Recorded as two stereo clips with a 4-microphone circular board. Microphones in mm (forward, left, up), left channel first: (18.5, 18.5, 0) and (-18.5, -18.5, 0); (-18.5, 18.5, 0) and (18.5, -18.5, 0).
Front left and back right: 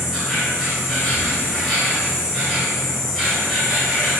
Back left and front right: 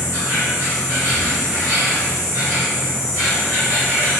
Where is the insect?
50° right, 2.0 m.